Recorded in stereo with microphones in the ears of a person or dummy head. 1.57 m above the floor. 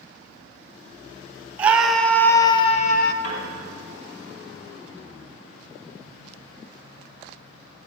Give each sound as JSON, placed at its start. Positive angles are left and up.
{"t": 1.6, "sound": "a scream", "side_deg": -10, "distance_m": 0.9}
{"t": 3.2, "sound": "a piano", "side_deg": 55, "distance_m": 4.5}